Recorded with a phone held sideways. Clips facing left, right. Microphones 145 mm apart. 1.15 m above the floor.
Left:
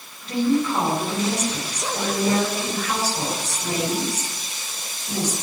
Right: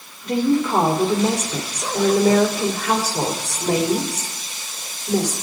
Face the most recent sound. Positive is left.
turn(degrees=-75)  # may be behind; listen again after turning